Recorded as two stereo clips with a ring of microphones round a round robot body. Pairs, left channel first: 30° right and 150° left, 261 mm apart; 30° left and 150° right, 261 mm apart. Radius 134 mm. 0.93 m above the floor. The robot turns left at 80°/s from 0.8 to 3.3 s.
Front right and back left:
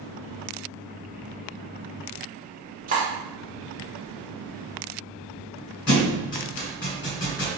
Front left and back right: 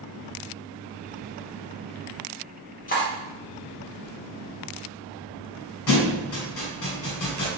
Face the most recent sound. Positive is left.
turn(degrees=20)